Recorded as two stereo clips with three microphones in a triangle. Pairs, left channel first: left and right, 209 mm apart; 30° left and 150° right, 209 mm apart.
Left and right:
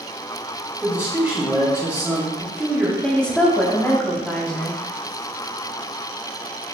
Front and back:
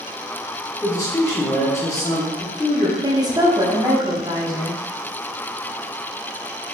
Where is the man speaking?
20° right, 0.9 m.